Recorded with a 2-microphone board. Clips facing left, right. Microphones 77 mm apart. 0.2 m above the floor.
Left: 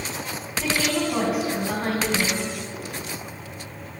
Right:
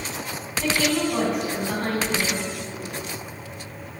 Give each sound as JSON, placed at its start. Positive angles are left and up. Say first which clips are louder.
{"t": 0.6, "sound": "a woman speaking", "louder": "right 1 dB", "side_deg": 5, "distance_m": 1.8}